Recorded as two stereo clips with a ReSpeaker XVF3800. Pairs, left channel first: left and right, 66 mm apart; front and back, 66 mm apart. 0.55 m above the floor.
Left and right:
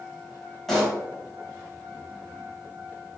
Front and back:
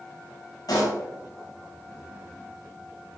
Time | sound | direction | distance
0.7 | a pop | 5° left | 3.5 m